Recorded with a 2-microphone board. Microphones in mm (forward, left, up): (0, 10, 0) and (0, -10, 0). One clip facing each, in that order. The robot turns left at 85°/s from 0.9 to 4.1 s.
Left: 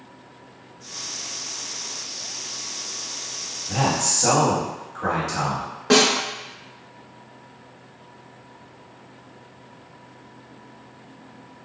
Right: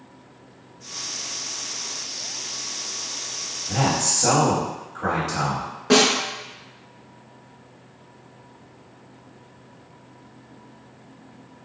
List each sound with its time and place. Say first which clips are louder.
3.7 s a man speaking: even; 150° right, 1.8 m; by 5.7 s 170° left, 1.8 m
5.9 s a snare drum: even; 25° left (ahead or behind), 0.7 m